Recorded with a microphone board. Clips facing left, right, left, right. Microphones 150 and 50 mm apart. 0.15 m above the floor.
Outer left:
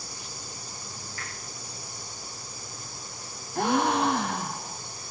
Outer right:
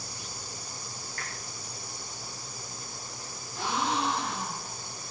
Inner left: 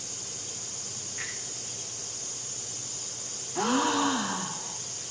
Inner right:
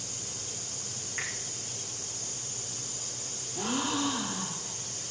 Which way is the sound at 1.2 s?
45° right (ahead or behind).